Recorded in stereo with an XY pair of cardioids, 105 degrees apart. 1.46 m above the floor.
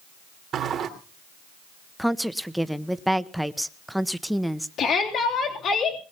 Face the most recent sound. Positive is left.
turn(degrees=70)